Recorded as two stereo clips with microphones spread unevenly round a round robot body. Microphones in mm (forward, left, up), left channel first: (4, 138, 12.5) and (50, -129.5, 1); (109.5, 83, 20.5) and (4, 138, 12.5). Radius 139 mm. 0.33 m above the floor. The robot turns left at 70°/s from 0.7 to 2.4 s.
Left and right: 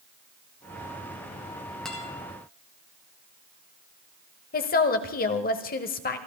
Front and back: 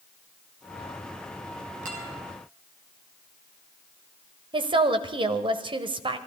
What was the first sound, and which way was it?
A guitar, 170° right.